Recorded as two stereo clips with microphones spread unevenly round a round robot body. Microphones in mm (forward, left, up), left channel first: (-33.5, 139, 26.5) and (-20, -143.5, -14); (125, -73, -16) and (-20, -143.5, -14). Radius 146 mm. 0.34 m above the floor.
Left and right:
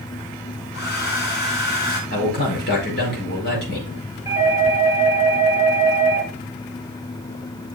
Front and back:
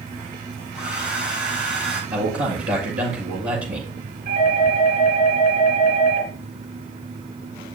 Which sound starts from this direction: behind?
A doorbell, at 4.2 s.